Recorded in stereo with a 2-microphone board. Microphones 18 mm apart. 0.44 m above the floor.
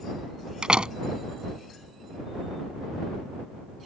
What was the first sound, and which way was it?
A door slam, 55° right (ahead or behind).